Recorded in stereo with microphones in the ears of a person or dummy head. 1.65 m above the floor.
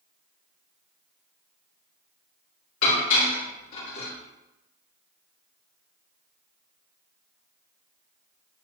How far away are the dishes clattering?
About 3 m.